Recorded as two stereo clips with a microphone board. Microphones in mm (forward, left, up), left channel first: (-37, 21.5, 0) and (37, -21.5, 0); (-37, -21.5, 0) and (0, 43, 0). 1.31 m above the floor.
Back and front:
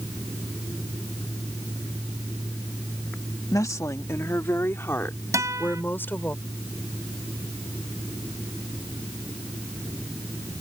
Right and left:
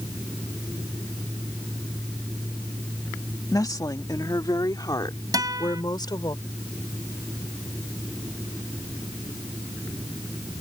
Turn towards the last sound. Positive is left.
turn(degrees=25)